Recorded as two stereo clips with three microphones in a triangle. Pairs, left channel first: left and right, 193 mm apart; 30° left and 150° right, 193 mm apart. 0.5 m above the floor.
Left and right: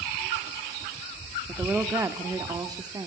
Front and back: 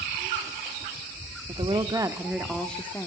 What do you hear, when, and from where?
1.5 s a woman speaking: 165° right, 0.8 m; by 3.1 s 40° right, 0.9 m